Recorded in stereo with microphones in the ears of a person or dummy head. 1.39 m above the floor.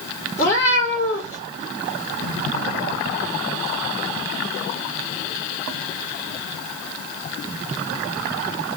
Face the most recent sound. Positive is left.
turn(degrees=20)  # may be behind; listen again after turning